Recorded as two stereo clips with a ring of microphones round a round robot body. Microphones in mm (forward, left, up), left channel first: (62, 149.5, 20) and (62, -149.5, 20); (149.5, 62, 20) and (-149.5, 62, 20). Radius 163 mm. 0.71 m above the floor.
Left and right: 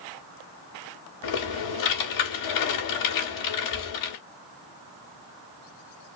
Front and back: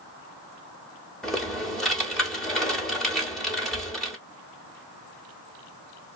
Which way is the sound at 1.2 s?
90° left.